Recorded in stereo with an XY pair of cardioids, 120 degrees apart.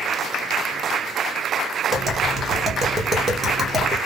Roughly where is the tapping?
Ahead.